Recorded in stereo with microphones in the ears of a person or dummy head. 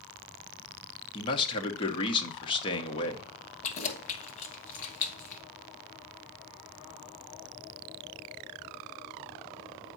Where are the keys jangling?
40° left (ahead or behind), 1.1 m.